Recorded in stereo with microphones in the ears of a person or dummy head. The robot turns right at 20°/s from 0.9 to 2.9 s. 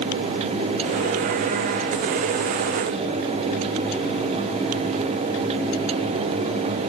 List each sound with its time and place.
Only background noise.